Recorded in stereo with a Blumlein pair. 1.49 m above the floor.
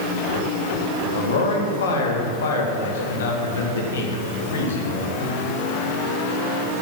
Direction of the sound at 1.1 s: 65° left.